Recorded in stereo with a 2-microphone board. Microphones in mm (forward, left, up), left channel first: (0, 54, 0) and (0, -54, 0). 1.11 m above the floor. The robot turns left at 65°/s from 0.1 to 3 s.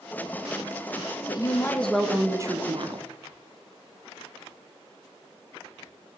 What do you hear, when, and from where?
1.3 s a woman speaking: 45° left, 1.0 m; by 3.1 s 65° right, 1.0 m